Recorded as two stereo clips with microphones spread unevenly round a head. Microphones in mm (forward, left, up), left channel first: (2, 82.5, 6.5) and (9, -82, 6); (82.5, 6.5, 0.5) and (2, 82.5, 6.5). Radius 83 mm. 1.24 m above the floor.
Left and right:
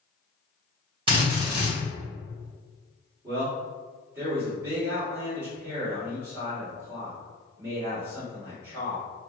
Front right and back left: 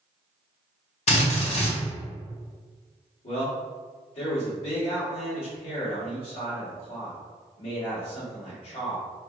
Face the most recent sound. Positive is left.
turn(degrees=-10)